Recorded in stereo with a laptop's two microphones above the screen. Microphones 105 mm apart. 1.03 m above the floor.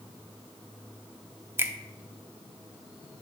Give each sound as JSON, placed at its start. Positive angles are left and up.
{"t": 1.6, "sound": "a finger snap", "side_deg": -25, "distance_m": 0.6}